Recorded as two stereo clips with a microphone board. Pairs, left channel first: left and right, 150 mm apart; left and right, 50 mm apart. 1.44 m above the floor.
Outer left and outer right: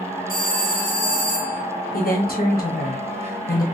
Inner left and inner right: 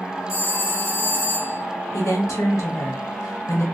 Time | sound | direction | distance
0.3 | a phone ringing | 70° left (ahead or behind) | 1.2 m
1.9 | a woman speaking | 80° left | 1.1 m